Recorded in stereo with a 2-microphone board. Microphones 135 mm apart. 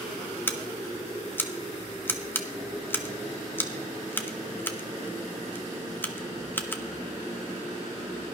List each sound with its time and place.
0.5 s scissors: 15° left (ahead or behind), 1.0 m